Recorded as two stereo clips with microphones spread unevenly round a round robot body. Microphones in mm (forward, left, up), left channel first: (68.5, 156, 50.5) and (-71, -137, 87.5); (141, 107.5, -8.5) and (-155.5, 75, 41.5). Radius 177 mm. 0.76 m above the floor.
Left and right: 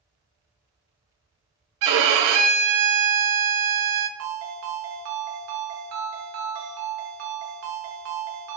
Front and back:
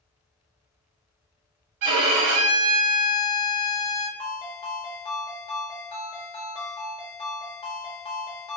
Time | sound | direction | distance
1.8 | a violin | 145° right | 0.6 m
4.2 | a ringtone | 70° right | 0.9 m